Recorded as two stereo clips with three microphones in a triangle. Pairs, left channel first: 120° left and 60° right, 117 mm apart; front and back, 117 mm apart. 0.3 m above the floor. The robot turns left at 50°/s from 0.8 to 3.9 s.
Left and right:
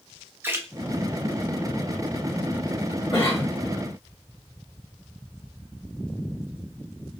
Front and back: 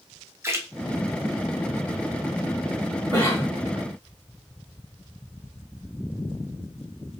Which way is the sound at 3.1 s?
135° left.